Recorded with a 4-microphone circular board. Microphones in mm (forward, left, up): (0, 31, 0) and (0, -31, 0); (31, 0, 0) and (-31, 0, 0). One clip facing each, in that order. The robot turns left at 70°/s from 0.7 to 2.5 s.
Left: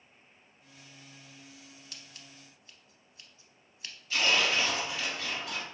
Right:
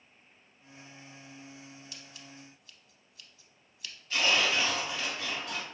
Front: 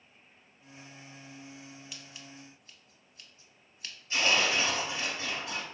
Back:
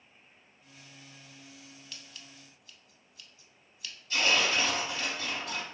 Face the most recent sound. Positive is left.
turn(degrees=5)